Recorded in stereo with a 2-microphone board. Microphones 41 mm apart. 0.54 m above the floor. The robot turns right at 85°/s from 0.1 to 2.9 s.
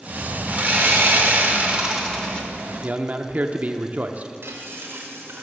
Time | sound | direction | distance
0.5 | sawing | 140° right | 1.4 m
2.8 | a man speaking | 35° right (ahead or behind) | 0.7 m
4.4 | frying | 70° right (ahead or behind) | 2 m